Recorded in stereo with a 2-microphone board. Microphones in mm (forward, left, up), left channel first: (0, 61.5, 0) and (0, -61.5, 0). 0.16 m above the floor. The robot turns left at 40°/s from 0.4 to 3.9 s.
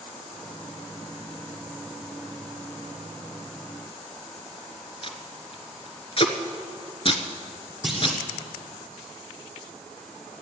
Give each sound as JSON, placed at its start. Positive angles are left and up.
{"t": 5.0, "sound": "tape being pulled", "side_deg": 50, "distance_m": 1.1}
{"t": 7.8, "sound": "a clunk", "side_deg": 0, "distance_m": 1.9}